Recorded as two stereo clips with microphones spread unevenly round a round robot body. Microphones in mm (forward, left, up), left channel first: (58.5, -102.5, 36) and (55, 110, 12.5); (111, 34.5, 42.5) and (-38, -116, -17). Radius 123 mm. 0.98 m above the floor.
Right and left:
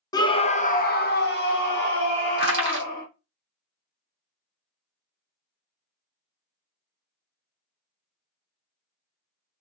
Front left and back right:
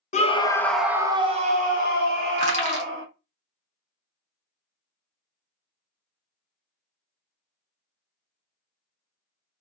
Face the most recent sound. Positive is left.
turn(degrees=160)